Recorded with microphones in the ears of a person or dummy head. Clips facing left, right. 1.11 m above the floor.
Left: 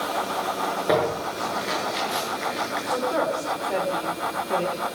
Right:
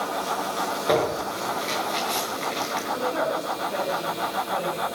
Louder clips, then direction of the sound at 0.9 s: Even; 10° left (ahead or behind).